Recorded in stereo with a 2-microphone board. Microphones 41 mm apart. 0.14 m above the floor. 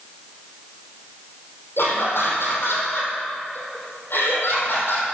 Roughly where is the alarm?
I don't hear an alarm.